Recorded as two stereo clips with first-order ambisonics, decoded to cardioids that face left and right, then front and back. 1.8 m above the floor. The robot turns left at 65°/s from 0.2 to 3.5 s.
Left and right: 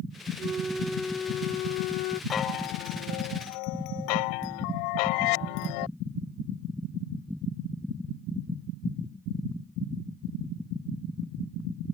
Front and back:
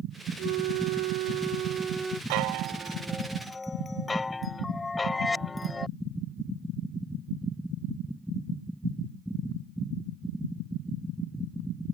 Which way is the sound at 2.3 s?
155° left.